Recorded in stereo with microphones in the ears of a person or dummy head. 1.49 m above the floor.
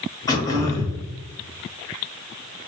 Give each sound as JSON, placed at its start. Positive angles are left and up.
{"t": 0.3, "sound": "throat clearing", "side_deg": 20, "distance_m": 1.0}